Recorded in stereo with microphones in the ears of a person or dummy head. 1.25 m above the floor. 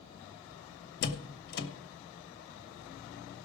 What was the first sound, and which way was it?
A door slam, 60° left (ahead or behind).